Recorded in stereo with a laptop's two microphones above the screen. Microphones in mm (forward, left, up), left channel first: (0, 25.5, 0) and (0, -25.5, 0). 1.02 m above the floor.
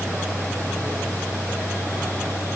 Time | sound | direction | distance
0.0 | a fan | 70° right (ahead or behind) | 7 m